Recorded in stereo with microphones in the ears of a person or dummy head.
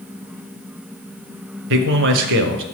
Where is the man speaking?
65° right (ahead or behind), 0.6 m.